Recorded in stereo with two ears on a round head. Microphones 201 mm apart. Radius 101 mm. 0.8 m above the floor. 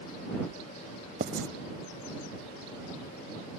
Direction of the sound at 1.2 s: 40° right (ahead or behind).